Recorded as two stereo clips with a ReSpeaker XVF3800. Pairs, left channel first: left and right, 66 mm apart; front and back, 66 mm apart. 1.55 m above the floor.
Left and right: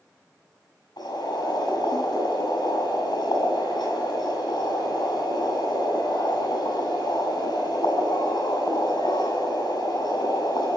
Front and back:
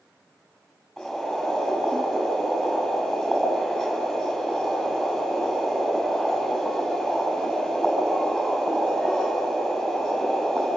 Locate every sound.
1.0 s boiling: 90° left, 7 m